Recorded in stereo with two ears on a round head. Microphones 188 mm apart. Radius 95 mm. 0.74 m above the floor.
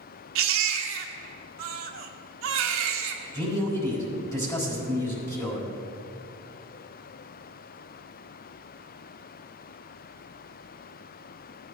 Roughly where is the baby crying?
Right.